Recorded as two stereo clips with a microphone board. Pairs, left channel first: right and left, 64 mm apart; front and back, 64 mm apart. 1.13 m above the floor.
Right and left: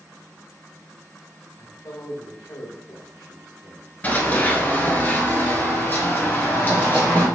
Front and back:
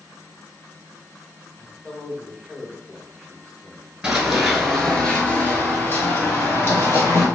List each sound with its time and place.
1.6 s a man speaking: 75° right, 1.3 m
4.0 s running footsteps: 110° right, 1.2 m; by 7.2 s 35° right, 2 m